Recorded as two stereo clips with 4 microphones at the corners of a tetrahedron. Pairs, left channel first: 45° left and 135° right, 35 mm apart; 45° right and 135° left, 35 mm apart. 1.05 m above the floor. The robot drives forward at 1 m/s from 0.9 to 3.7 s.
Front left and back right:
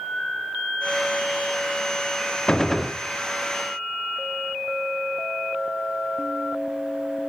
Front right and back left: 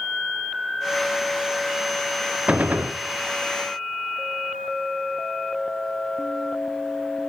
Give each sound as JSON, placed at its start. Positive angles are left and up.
{"t": 2.5, "sound": "a gunshot", "azimuth_deg": 100, "distance_m": 0.6}